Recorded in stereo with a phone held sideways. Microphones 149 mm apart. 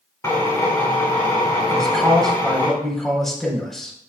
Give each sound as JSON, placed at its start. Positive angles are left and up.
{"t": 0.2, "sound": "a drill", "side_deg": 20, "distance_m": 5.0}
{"t": 1.7, "sound": "a man speaking", "side_deg": 5, "distance_m": 3.5}